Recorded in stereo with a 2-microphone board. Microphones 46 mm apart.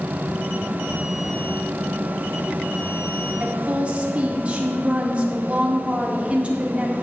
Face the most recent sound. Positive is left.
turn(degrees=-25)  # may be behind; listen again after turning